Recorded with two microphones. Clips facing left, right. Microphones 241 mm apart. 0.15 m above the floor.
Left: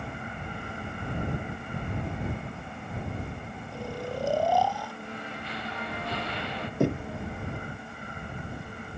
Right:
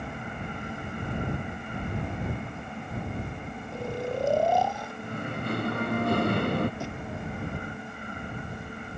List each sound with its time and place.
3.7 s snoring: 20° right (ahead or behind)
5.0 s singing: 50° right (ahead or behind)
6.8 s knocking: 65° left (ahead or behind)